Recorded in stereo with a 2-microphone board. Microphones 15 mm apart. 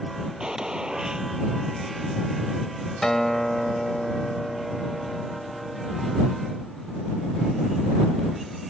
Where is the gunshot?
65° right (ahead or behind).